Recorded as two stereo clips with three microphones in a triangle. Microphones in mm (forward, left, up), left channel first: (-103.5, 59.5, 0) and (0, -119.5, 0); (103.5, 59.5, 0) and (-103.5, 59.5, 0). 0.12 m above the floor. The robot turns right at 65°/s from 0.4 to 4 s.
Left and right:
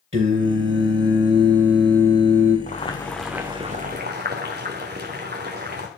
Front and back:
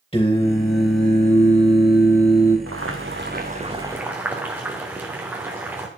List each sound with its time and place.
0.1 s singing: 65° right, 2.5 m; by 2.6 s 80° left, 2.5 m
2.7 s boiling: 175° left, 2 m; by 5.9 s 100° right, 2 m